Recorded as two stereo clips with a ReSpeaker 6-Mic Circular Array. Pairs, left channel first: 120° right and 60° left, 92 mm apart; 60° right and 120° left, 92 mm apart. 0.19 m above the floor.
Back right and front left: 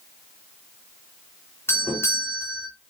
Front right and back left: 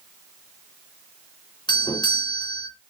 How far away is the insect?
No insect in this recording.